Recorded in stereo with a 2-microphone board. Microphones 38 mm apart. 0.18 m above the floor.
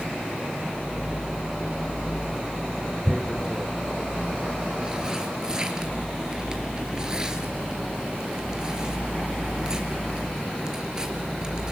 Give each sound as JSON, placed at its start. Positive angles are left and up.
{"t": 3.0, "sound": "tearing paper", "side_deg": -20, "distance_m": 2.5}